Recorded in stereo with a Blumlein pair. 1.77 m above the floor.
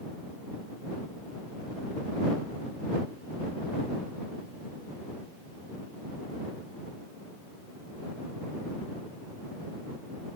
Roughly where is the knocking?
No knocking in this recording.